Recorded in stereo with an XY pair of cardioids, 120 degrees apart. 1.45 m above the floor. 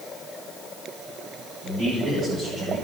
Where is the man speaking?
60° right, 7 m.